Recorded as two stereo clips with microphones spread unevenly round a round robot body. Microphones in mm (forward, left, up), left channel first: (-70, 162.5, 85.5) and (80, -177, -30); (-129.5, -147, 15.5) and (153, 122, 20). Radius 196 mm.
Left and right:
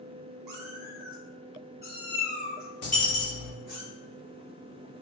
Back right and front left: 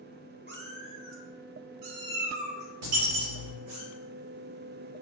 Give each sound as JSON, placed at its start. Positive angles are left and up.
{"t": 0.5, "sound": "a cat meowing", "azimuth_deg": -25, "distance_m": 0.6}
{"t": 2.8, "sound": "a dropped coin", "azimuth_deg": 50, "distance_m": 2.0}